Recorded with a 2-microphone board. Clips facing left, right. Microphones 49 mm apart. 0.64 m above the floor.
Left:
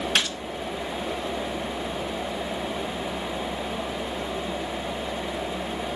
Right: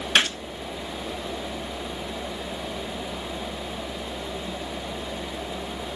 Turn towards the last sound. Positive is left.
turn(degrees=-45)  # may be behind; listen again after turning